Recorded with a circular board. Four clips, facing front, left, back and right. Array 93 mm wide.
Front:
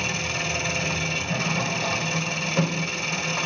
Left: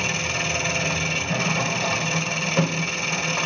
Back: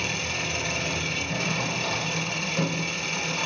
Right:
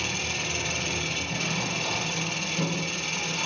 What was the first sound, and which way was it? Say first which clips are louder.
An engine running: left 6 dB, front 2 dB; 65° left.